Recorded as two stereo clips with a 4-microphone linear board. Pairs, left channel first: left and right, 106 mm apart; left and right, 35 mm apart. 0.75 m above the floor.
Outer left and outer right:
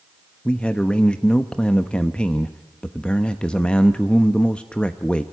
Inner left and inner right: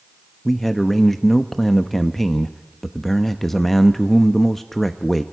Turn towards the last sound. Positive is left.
turn(degrees=10)  # may be behind; listen again after turning